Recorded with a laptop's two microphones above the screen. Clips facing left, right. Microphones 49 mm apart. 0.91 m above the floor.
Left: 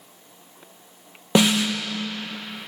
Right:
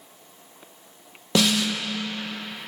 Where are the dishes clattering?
I don't hear dishes clattering.